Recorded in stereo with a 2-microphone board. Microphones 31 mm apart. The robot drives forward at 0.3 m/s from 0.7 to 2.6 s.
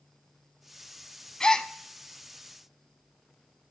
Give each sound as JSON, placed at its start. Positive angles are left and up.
{"t": 1.4, "sound": "a gasp", "side_deg": 25, "distance_m": 0.6}